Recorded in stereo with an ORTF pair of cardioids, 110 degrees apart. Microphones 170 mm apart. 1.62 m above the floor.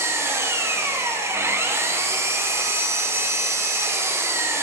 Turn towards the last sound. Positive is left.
turn(degrees=-15)